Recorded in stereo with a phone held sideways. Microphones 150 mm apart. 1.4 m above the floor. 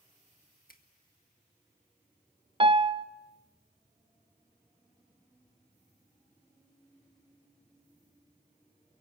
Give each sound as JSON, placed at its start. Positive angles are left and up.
{"t": 0.7, "sound": "a finger snap", "side_deg": 75, "distance_m": 1.8}
{"t": 2.6, "sound": "a piano", "side_deg": -35, "distance_m": 0.6}